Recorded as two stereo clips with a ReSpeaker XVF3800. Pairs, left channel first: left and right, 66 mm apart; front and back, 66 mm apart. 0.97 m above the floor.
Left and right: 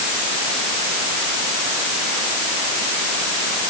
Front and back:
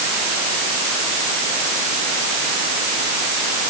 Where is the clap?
I don't hear a clap.